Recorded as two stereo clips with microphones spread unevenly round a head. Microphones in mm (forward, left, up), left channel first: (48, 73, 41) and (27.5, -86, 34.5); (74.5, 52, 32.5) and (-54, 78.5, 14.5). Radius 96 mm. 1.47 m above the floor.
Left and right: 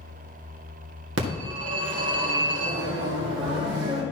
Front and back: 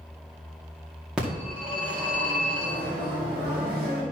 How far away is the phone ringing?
About 2 m.